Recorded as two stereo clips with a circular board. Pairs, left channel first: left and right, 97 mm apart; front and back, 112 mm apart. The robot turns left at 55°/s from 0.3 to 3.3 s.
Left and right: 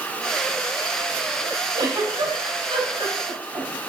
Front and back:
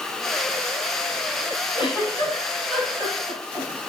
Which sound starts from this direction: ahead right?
A giggle, at 1.7 s.